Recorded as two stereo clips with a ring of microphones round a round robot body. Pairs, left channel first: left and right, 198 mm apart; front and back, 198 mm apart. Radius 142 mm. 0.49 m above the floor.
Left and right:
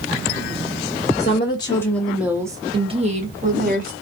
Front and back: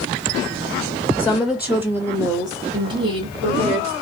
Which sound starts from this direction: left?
A woman speaking, at 1.2 s.